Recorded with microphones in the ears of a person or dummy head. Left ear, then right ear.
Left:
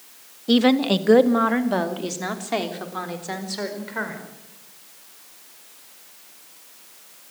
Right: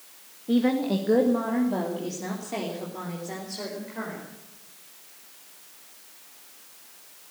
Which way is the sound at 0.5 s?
80° left.